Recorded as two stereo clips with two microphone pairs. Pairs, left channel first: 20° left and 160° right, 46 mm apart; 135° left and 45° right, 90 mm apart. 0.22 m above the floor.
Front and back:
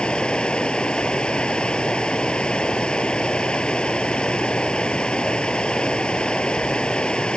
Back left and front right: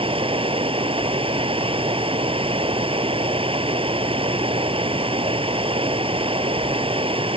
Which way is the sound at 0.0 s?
50° right.